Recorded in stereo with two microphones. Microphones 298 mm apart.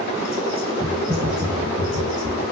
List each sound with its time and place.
0.8 s typing on a keyboard: 40° right (ahead or behind), 1.3 m